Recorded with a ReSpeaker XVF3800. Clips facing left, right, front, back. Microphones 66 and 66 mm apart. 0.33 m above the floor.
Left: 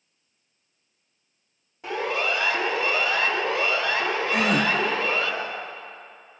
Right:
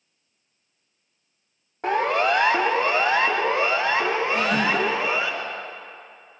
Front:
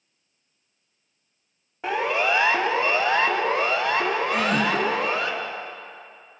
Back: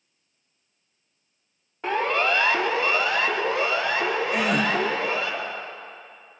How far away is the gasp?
About 4 m.